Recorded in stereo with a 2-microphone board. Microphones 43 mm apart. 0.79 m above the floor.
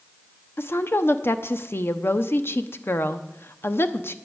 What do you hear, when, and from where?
0.6 s a woman speaking: 60° left (ahead or behind), 0.8 m